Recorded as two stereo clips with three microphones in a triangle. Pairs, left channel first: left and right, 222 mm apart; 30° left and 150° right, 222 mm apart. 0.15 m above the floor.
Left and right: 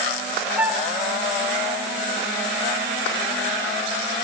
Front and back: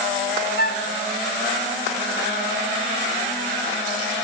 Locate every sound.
0.6 s a flute: 5° right, 0.8 m